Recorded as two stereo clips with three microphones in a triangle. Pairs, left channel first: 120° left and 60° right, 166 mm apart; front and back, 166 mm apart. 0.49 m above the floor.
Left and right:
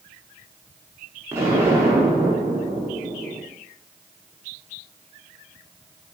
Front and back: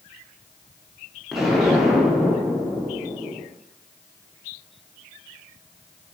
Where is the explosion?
95° right, 0.8 m.